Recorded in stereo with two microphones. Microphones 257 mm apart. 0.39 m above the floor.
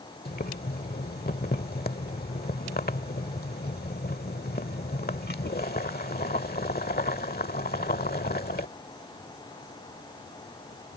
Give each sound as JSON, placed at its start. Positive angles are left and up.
{"t": 0.2, "sound": "boiling", "side_deg": 35}